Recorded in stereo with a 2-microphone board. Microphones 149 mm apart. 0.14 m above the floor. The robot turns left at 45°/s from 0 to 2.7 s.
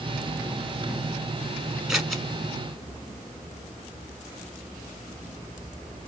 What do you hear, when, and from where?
1.9 s scissors: 5° right (ahead or behind), 1.0 m; by 2.2 s 5° left (ahead or behind), 1.0 m